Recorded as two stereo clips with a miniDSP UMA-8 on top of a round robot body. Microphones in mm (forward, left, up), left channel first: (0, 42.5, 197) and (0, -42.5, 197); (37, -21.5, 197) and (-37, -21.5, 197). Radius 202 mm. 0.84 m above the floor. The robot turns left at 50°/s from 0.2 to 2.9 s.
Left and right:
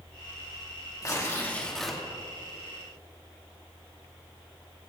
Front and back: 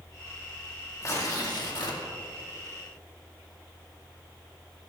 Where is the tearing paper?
45° left, 2.5 m; by 2.0 s 5° right, 2.5 m.